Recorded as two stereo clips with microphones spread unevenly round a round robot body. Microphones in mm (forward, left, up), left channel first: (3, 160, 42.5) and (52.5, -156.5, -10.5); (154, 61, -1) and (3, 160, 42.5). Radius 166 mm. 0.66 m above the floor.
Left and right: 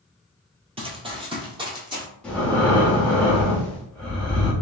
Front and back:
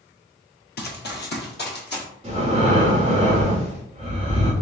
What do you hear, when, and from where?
0.8 s running footsteps: 5° right, 1.0 m; by 2.0 s straight ahead, 2.0 m
2.2 s breathing: 160° right, 1.1 m